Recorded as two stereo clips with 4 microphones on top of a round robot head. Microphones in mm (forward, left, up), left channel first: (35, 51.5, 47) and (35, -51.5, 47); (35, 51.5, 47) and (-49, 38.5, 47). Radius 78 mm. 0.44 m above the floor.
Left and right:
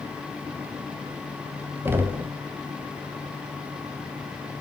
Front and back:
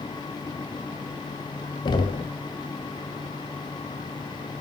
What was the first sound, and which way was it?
Knocking, 25° right.